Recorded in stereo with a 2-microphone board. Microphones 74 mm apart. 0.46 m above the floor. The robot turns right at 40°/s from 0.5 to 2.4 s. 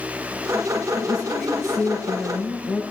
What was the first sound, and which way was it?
A woman speaking, 25° right.